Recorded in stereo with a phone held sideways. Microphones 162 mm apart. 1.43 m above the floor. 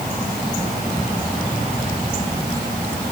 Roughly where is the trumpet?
No trumpet in this recording.